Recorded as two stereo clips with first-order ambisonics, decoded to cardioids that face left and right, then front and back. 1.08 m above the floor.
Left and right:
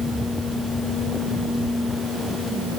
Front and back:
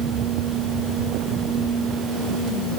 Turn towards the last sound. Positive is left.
No sound to turn to.